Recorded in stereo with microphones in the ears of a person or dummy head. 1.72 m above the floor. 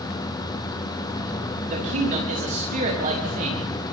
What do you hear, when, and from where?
0.0 s a machine running: 20° left (ahead or behind), 0.7 m
1.7 s a man speaking: 45° right (ahead or behind), 5 m